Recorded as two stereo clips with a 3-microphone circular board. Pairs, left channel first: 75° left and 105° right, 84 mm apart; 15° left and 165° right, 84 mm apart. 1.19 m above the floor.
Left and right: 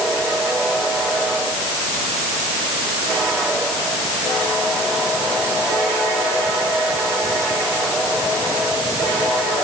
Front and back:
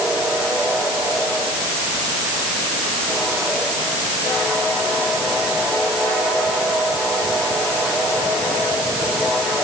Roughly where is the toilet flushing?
I don't hear a toilet flushing.